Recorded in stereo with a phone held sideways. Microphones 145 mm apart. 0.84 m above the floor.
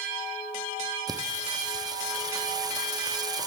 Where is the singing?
25° right (ahead or behind), 0.5 m.